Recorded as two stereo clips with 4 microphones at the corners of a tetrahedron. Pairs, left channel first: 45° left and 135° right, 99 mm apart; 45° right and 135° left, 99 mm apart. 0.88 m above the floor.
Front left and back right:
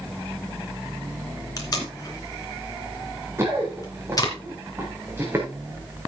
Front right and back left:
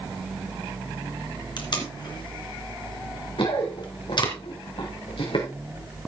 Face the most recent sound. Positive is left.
turn(degrees=-70)